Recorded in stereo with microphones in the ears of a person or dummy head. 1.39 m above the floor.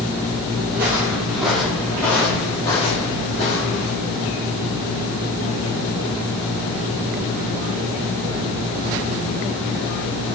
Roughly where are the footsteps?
Centre.